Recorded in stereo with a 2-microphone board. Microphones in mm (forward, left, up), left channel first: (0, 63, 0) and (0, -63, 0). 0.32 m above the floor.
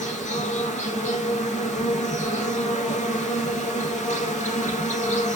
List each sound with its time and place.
0.0 s an insect: 85° left, 1.2 m